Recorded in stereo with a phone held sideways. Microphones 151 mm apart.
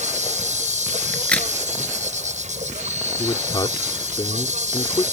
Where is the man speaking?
30° left (ahead or behind).